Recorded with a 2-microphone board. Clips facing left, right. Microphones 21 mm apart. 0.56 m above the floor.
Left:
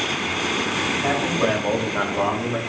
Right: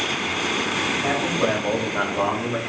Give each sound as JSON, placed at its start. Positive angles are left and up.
{"t": 1.0, "sound": "a man speaking", "side_deg": 25, "distance_m": 2.5}